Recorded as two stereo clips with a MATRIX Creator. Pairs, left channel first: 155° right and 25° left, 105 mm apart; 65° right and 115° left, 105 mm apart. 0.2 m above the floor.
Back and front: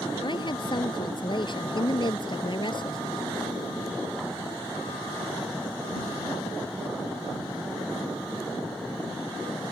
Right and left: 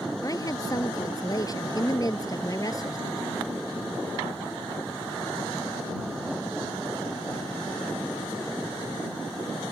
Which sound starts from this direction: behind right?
A woman speaking, at 0.2 s.